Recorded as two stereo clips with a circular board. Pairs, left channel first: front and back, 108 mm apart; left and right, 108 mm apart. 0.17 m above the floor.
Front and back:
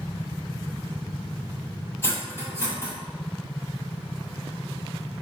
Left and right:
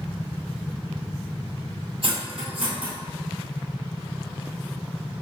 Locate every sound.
2.0 s cutlery clinking: 65° right, 1.8 m